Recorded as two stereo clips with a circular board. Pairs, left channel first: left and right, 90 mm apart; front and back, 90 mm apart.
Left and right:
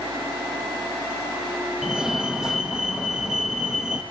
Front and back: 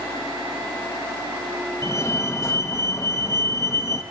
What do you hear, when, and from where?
1.8 s a fire alarm: 10° right, 1.5 m